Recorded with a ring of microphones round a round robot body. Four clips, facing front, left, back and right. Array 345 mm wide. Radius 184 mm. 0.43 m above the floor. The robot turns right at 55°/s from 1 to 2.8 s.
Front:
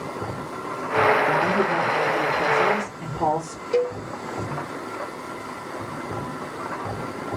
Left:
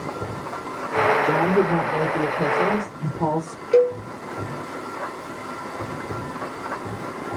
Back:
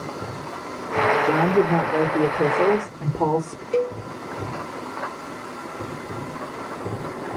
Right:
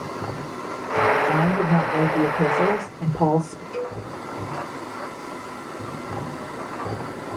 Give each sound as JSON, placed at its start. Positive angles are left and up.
{"t": 1.2, "sound": "a woman speaking", "azimuth_deg": 125, "distance_m": 1.3}
{"t": 3.7, "sound": "a cowbell", "azimuth_deg": 85, "distance_m": 1.4}